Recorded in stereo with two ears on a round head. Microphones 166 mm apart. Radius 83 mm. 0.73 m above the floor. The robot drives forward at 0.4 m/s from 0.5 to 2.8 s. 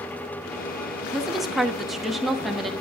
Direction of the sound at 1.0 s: Centre (ahead or behind).